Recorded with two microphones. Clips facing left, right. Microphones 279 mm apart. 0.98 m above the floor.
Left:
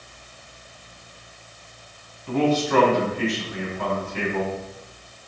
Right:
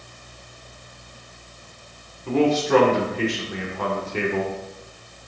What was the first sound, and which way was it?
A man speaking, 80° right.